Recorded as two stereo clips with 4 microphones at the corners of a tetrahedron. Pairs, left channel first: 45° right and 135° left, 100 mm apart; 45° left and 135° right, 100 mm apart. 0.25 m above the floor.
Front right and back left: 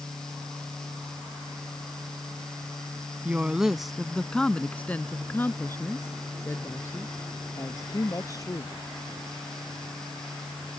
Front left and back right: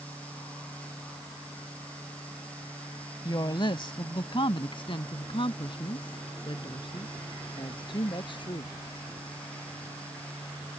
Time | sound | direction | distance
3.2 | a woman speaking | 65° left | ?